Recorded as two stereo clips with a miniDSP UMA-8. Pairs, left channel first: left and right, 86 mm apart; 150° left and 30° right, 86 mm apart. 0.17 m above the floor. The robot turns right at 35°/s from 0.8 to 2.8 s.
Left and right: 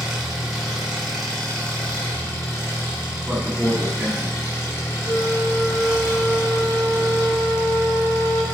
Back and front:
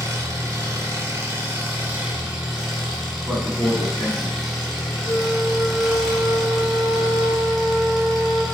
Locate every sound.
0.0 s an engine running: 5° right, 1.4 m; by 8.6 s 65° left, 1.4 m
3.3 s a man speaking: 80° right, 1.3 m
5.0 s a flute: 120° left, 0.7 m